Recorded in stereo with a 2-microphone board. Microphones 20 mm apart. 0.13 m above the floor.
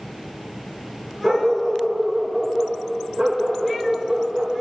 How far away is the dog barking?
About 6.5 m.